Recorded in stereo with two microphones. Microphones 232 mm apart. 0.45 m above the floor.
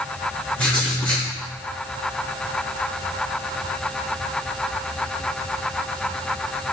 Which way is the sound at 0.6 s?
5° left (ahead or behind).